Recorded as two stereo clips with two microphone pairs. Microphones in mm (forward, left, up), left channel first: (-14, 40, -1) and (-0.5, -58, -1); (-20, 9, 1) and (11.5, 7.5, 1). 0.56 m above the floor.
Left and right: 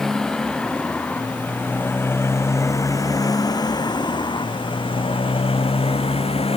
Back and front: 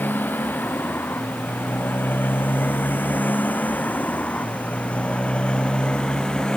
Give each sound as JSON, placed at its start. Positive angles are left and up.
{"t": 0.0, "sound": "a motorcycle", "azimuth_deg": -175}